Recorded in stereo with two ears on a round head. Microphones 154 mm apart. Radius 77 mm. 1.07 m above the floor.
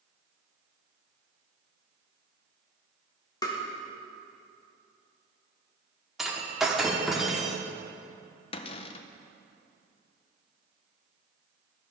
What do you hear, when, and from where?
3.4 s tapping: 20° left (ahead or behind), 1.2 m
6.2 s breaking glass: centre (ahead or behind), 1.1 m
8.5 s a cupboard door: 35° left (ahead or behind), 0.5 m